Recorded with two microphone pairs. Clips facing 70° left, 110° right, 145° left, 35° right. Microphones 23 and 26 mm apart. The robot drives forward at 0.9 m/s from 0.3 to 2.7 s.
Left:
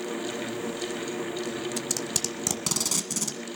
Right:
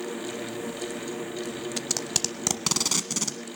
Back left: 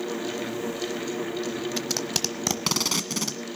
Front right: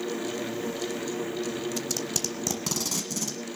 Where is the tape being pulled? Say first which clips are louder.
Right 1 dB, back left 3 dB; 170° right, 0.6 m; by 3.6 s 175° right, 1.3 m.